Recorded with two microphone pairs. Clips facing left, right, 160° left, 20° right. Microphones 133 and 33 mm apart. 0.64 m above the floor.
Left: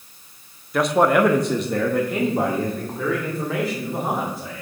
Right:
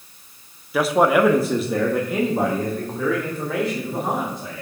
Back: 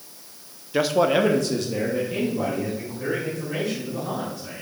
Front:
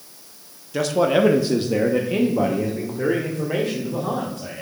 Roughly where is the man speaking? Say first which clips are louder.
Even, front 1 dB; behind.